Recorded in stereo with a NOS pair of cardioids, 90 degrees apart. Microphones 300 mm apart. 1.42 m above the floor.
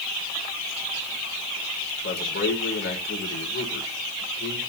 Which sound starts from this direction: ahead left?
A man speaking, at 2.0 s.